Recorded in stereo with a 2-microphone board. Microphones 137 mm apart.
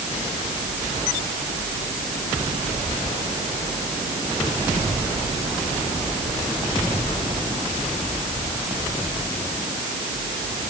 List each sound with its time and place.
Only background noise.